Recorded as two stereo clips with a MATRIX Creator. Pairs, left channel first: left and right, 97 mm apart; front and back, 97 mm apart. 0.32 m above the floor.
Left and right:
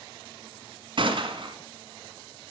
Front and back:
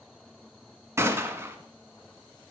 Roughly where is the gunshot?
Behind right.